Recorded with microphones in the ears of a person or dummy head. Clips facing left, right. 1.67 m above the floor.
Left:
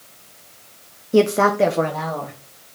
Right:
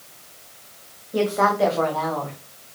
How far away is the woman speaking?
About 0.7 m.